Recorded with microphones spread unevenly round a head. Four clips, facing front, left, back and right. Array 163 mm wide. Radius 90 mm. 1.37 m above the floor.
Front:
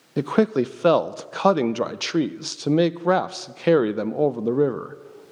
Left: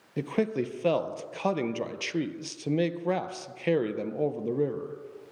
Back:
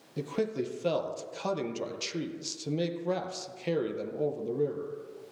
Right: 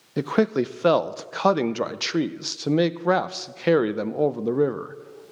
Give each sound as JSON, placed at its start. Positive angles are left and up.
{"t": 0.2, "sound": "a man speaking", "azimuth_deg": -25, "distance_m": 0.6}